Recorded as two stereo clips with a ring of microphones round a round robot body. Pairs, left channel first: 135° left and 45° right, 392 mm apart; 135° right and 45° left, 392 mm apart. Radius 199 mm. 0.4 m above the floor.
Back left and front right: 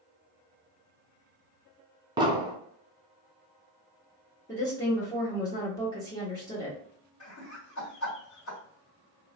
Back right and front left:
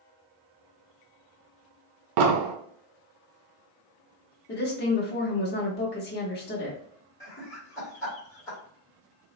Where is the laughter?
145° left, 1.3 m.